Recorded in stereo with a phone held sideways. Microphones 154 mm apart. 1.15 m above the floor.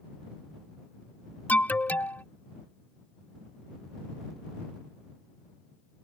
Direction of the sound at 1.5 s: 10° left (ahead or behind).